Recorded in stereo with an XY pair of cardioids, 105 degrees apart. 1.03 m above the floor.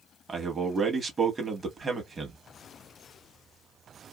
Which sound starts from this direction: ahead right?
A man speaking, at 0.3 s.